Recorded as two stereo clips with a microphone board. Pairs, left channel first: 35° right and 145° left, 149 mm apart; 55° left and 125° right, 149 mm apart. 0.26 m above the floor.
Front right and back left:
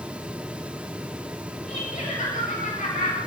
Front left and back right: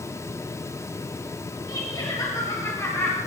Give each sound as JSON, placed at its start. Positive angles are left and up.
{"t": 1.7, "sound": "laughter", "azimuth_deg": -5, "distance_m": 4.5}